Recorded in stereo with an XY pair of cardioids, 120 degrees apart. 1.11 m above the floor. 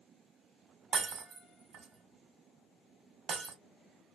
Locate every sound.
0.9 s breaking glass: 55° right, 1.3 m